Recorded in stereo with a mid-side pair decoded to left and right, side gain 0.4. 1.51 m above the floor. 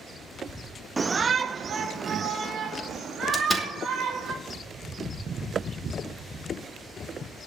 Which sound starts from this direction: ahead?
A door slam, at 3.3 s.